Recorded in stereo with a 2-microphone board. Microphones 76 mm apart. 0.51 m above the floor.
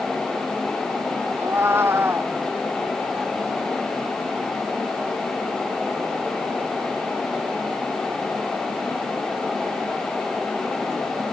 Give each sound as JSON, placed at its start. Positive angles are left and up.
{"t": 1.4, "sound": "a cat meowing", "side_deg": -30}